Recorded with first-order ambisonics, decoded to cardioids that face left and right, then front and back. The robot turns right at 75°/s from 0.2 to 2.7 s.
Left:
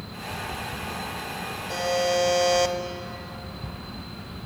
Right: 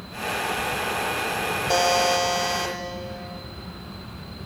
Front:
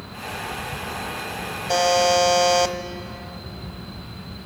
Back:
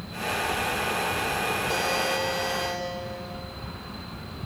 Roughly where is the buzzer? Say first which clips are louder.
Right 4 dB, front 13 dB; ahead right.